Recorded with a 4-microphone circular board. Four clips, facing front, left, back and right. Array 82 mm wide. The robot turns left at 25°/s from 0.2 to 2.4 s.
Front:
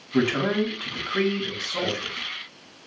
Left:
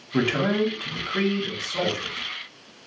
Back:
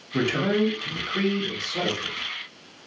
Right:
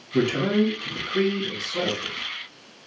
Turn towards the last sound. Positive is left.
turn(degrees=5)